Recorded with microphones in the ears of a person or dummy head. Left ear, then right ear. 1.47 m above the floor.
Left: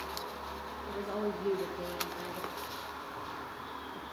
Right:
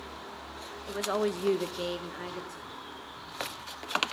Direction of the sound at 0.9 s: 45° right (ahead or behind).